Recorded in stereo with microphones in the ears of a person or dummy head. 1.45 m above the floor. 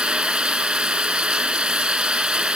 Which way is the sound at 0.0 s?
5° right (ahead or behind).